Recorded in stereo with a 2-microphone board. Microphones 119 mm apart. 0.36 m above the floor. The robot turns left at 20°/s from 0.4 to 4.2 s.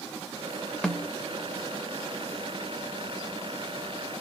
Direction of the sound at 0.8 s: 5° left (ahead or behind).